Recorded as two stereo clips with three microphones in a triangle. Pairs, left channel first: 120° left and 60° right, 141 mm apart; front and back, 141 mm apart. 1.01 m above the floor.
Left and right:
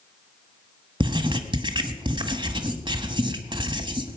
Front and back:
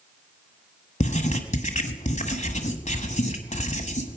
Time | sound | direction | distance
1.0 | writing | 15° right | 1.3 m